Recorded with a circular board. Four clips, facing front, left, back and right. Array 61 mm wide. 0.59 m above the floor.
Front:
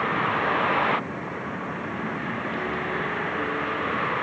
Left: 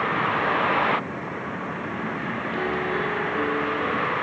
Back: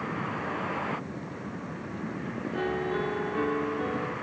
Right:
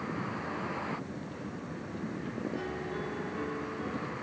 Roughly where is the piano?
Behind left.